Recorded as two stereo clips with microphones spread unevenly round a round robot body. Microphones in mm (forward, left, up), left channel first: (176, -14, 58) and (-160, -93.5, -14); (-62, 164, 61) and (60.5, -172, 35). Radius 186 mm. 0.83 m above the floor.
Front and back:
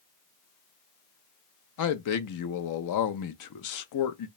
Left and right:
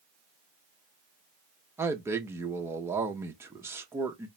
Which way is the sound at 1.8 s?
5° left.